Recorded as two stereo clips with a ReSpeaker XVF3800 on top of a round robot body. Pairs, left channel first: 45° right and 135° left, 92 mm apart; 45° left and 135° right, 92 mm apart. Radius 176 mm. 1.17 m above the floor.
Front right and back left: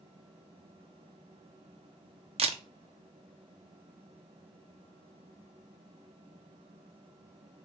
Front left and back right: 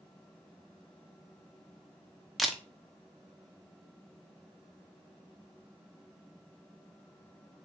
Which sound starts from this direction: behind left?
A camera shutter, at 2.4 s.